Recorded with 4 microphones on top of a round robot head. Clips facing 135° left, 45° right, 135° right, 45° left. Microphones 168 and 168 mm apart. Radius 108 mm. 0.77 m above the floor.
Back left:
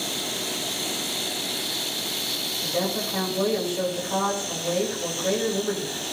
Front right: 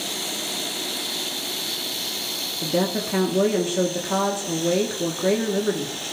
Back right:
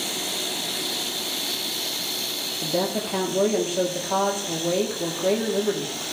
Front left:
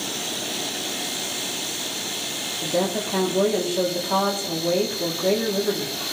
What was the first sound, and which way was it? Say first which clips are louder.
A woman speaking: front right 4 dB, front left 2 dB; 45° right.